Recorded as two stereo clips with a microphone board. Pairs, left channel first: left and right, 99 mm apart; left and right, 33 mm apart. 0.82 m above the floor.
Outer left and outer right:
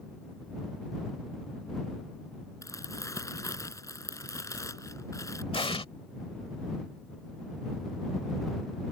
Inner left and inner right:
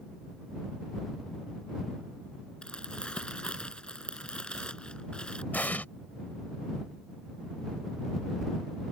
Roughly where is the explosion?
Left.